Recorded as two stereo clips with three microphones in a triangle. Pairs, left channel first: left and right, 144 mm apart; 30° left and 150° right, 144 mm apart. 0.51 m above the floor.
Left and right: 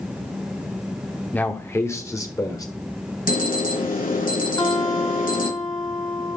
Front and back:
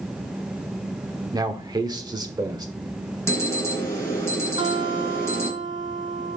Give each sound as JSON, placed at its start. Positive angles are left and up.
{"t": 1.3, "sound": "a man speaking", "azimuth_deg": 165, "distance_m": 1.0}
{"t": 3.3, "sound": "an alarm", "azimuth_deg": 100, "distance_m": 4.0}
{"t": 4.6, "sound": "a guitar", "azimuth_deg": 155, "distance_m": 1.8}